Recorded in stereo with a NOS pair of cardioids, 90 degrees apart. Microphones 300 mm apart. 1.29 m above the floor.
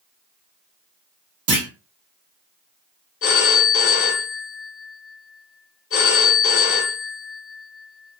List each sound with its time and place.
1.5 s a clunk: 50° right, 1.6 m
3.2 s a phone ringing: 50° left, 1.1 m